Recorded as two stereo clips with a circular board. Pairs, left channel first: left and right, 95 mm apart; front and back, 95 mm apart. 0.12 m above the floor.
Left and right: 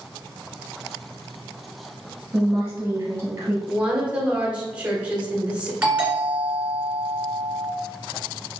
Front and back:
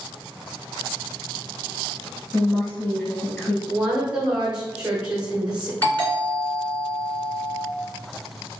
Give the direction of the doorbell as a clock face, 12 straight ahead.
1 o'clock.